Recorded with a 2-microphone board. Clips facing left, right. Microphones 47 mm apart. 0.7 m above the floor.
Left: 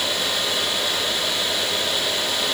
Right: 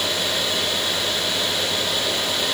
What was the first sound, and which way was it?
Only background noise.